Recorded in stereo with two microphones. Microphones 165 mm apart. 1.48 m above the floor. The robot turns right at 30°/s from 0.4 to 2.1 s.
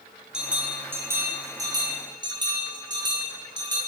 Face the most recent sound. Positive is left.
turn(degrees=-120)